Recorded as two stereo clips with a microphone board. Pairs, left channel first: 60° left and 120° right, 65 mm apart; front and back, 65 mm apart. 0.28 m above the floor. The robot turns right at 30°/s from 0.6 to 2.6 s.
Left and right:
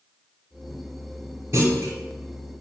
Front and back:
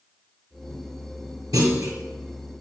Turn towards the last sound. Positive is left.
turn(degrees=-135)